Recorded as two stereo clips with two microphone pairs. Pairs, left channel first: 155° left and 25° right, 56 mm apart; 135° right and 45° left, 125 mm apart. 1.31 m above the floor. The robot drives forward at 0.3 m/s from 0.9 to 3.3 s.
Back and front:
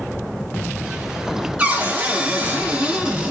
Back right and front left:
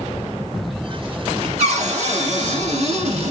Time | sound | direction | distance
1.6 | a cupboard door | 30° left | 1.5 m